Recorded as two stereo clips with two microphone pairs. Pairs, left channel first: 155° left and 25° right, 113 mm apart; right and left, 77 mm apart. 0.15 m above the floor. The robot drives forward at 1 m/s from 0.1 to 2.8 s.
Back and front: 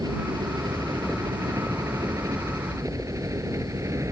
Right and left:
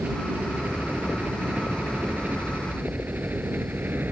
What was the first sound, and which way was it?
A helicopter, 25° left.